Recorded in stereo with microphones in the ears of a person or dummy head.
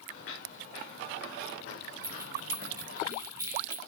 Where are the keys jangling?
20° right (ahead or behind), 0.7 m.